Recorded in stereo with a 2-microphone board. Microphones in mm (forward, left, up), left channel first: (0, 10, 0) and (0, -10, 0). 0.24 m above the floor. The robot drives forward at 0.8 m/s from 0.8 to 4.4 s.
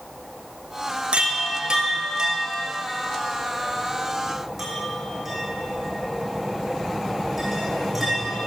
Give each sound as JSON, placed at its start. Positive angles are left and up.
{"t": 1.1, "sound": "a chime", "side_deg": -85, "distance_m": 0.9}